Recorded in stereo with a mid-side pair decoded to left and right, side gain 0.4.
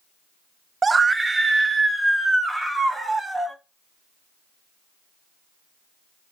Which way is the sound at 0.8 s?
35° right.